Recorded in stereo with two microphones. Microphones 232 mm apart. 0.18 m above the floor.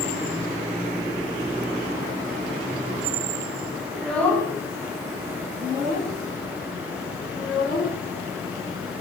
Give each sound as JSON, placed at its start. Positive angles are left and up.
{"t": 3.9, "sound": "a child speaking", "side_deg": 0, "distance_m": 1.0}